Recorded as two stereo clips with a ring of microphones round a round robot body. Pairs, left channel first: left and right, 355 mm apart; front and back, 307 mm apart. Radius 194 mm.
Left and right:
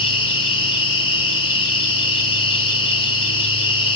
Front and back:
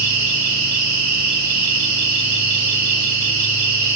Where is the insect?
165° left, 3.5 m.